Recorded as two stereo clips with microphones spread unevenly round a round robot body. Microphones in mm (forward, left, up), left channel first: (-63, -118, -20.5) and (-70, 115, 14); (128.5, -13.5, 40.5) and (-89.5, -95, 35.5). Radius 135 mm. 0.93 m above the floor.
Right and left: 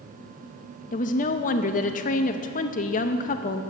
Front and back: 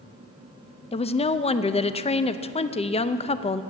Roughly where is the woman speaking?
Ahead right.